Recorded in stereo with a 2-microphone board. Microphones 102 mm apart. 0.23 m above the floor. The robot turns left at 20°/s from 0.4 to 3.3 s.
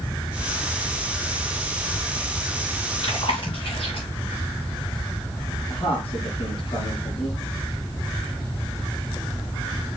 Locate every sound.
3.0 s chewing: 60° left (ahead or behind), 4.5 m; by 4.1 s 55° left (ahead or behind), 4.5 m
5.7 s a man speaking: 60° left (ahead or behind), 4 m